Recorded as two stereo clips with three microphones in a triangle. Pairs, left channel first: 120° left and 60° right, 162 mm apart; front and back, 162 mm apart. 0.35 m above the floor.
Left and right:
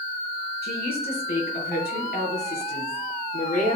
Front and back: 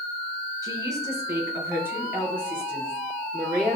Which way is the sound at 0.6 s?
115° left.